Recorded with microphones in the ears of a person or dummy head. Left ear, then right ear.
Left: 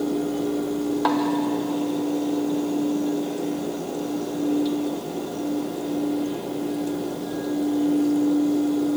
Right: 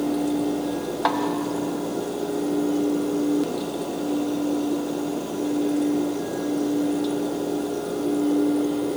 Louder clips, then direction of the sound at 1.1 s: Even; 10° right (ahead or behind).